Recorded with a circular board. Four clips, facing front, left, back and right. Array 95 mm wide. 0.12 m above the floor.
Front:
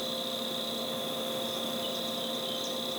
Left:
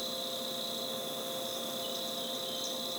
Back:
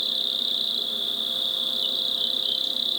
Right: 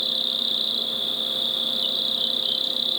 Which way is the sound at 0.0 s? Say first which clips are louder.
Right 4 dB, front 3 dB; 125° right.